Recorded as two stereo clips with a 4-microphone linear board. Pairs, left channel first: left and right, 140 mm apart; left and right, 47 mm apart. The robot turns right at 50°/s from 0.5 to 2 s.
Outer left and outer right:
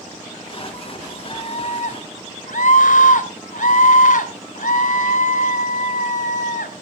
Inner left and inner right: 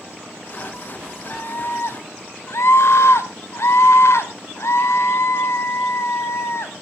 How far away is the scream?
About 3 m.